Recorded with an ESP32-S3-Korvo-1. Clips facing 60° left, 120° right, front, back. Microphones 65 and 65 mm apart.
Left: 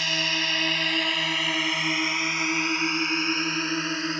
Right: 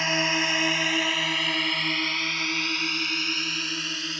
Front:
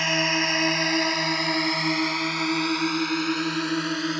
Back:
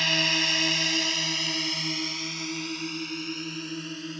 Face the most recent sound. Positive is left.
turn(degrees=5)